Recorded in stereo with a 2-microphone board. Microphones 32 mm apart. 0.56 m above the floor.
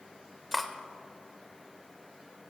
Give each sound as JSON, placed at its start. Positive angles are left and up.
{"t": 0.5, "sound": "cutlery clinking", "side_deg": 0, "distance_m": 1.0}